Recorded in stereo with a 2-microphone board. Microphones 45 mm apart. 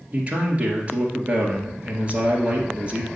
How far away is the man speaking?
About 2 m.